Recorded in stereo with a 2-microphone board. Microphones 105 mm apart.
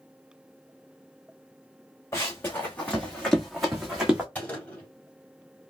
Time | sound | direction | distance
2.1 | running footsteps | 25° left (ahead or behind) | 1.7 m
4.3 | a gunshot | 15° left (ahead or behind) | 2.5 m